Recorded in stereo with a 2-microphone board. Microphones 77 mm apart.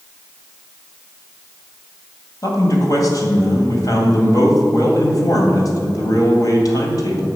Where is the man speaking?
50° left (ahead or behind), 2 m.